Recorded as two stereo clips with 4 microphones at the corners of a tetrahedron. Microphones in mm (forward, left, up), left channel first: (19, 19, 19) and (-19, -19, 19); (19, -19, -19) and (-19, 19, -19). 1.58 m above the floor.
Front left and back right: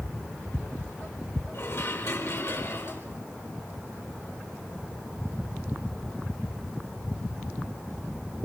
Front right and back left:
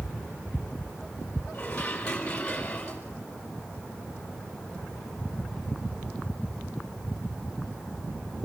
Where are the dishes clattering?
20° left, 4.5 m.